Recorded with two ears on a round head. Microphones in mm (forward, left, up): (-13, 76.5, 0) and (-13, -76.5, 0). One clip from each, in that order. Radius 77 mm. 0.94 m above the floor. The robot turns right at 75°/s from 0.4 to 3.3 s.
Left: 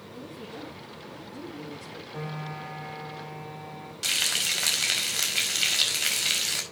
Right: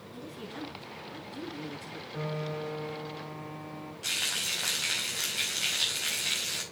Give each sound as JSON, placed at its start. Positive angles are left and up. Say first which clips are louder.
{"t": 0.1, "sound": "a woman speaking", "louder": "left 1 dB", "azimuth_deg": -105, "distance_m": 8.0}
{"t": 2.1, "sound": "a piano", "louder": "right 2 dB", "azimuth_deg": 25, "distance_m": 6.0}
{"t": 4.0, "sound": "frying", "louder": "left 5 dB", "side_deg": 80, "distance_m": 5.0}